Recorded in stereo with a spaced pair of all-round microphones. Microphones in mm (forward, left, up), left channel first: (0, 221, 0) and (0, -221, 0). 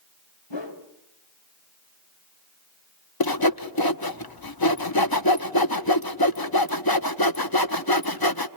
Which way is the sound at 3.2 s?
55° left (ahead or behind).